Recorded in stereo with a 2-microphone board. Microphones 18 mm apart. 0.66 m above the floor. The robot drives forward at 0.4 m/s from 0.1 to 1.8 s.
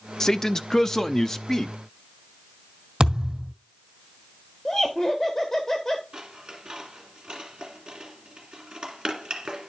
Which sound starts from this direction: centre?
Laughter, at 4.7 s.